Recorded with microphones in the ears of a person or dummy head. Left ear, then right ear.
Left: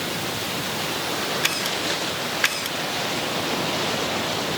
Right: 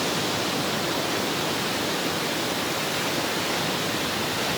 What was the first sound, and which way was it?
Only background noise.